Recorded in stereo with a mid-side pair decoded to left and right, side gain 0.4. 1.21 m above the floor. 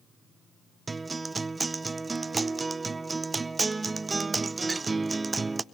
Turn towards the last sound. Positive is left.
turn(degrees=-25)